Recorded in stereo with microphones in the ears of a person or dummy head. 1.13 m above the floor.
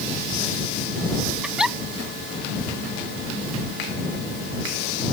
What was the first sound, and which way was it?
A giggle, 10° right (ahead or behind).